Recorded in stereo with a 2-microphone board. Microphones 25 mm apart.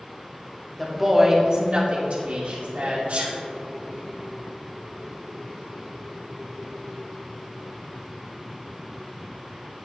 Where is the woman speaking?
Centre (ahead or behind), 1.9 m; by 3.0 s 70° right (ahead or behind), 3.5 m.